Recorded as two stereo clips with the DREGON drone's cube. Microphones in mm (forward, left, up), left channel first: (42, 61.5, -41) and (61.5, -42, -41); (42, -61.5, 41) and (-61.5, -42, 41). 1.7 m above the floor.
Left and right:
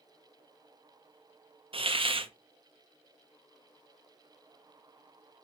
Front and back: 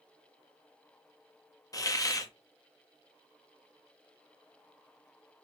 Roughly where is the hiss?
Ahead right.